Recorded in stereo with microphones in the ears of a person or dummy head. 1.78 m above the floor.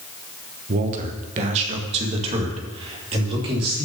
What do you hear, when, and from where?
0.7 s a man speaking: 45° right (ahead or behind), 1.1 m; by 3.9 s 30° right (ahead or behind), 3 m